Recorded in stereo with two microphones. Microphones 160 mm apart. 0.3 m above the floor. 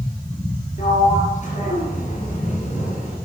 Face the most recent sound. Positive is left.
turn(degrees=50)  # may be behind; listen again after turning